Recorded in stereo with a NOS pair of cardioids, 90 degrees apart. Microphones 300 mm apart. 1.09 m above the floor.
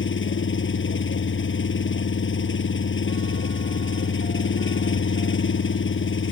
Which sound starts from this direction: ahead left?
An engine running, at 0.0 s.